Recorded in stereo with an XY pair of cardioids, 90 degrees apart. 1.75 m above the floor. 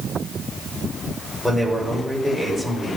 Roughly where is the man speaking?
Ahead.